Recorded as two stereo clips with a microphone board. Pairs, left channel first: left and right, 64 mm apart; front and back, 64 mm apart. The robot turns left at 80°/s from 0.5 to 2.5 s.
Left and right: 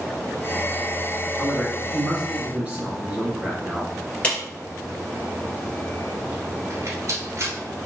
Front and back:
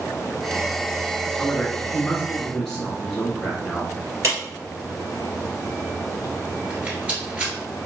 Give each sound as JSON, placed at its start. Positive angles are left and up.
{"t": 1.4, "sound": "a man speaking", "azimuth_deg": 15, "distance_m": 1.0}
{"t": 4.2, "sound": "a clap", "azimuth_deg": 155, "distance_m": 2.0}
{"t": 6.7, "sound": "a rattle", "azimuth_deg": -115, "distance_m": 1.3}